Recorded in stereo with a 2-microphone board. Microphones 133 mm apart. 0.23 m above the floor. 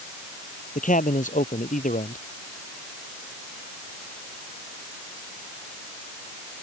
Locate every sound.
0.8 s a man speaking: 75° left (ahead or behind)